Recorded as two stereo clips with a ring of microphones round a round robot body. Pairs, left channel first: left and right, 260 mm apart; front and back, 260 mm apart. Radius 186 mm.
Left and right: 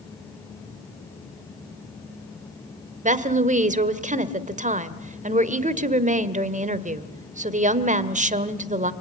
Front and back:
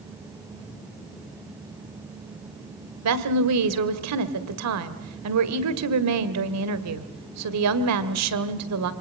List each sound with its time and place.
3.0 s a woman speaking: 150° right, 1.9 m